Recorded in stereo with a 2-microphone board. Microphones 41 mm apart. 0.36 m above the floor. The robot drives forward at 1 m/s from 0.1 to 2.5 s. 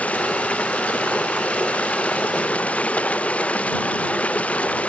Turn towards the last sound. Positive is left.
turn(degrees=35)  # may be behind; listen again after turning